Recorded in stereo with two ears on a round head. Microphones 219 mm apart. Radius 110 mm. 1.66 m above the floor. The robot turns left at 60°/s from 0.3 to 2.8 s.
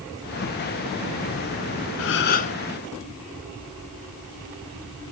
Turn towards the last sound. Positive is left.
turn(degrees=10)